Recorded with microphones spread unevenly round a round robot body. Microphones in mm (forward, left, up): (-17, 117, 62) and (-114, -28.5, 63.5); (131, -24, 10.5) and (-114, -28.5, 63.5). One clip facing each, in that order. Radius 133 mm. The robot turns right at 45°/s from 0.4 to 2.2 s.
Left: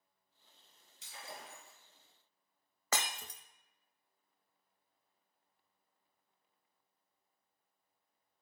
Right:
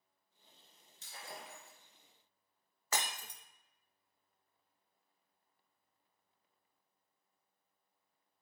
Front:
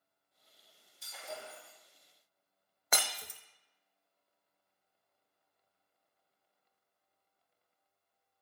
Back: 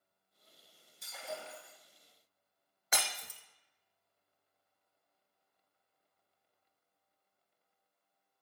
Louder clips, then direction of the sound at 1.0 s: Even, back 2 dB; 175° right.